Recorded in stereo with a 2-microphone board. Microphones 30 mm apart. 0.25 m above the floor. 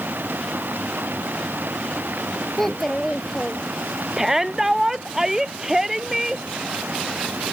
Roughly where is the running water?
Right.